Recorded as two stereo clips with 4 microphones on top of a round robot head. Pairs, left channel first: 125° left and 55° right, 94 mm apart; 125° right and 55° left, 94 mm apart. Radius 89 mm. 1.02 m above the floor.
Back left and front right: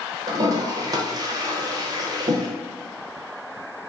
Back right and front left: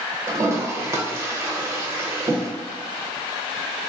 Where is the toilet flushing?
5° right, 0.5 m.